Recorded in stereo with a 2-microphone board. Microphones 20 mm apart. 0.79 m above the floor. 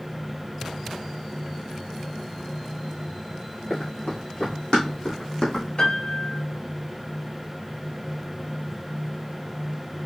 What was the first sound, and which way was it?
Running footsteps, 70° left (ahead or behind).